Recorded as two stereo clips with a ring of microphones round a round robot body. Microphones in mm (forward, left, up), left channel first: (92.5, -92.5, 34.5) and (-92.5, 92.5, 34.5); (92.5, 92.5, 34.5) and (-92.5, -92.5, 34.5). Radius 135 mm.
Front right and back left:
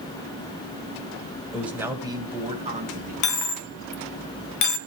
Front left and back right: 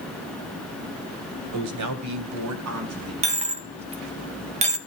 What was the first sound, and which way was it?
A man speaking, 135° right.